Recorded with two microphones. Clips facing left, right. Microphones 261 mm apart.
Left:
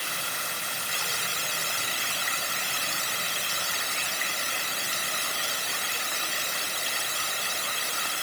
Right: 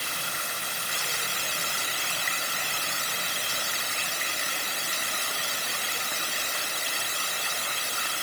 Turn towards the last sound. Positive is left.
No sound to turn to.